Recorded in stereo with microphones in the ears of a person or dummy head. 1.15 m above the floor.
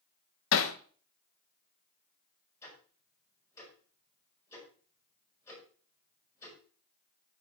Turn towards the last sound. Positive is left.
turn(degrees=10)  # may be behind; listen again after turning